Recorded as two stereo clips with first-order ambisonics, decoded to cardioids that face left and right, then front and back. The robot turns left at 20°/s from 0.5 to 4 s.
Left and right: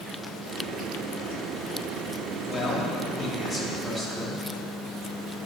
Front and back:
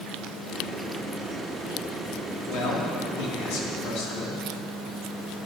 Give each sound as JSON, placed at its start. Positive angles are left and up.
{"t": 2.5, "sound": "a man speaking", "azimuth_deg": 15, "distance_m": 2.5}